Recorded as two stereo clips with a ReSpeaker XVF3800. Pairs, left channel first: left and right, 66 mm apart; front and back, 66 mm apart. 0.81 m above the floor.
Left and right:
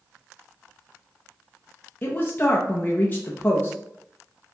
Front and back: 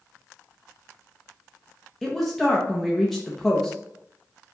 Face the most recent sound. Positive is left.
turn(degrees=85)